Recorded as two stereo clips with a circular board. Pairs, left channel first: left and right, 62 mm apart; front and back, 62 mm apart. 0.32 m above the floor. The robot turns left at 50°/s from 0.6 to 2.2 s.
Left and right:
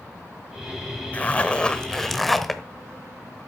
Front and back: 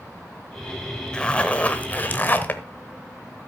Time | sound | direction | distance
1.1 | a zipper | 60° left | 0.9 m